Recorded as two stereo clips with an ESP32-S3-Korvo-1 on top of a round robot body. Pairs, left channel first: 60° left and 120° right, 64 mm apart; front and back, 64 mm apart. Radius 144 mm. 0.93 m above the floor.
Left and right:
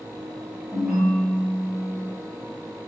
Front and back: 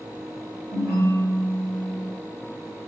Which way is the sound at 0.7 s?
155° left.